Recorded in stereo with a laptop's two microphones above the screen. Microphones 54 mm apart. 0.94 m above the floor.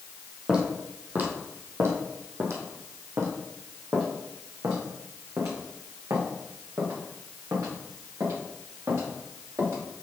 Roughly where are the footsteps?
Centre.